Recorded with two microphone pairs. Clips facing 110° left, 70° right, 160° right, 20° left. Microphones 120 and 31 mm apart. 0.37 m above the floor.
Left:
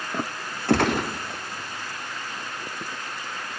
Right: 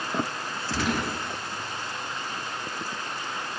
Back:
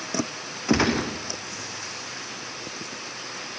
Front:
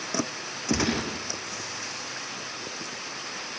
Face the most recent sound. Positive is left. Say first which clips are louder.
# left 7 dB, back 5 dB
turn(degrees=140)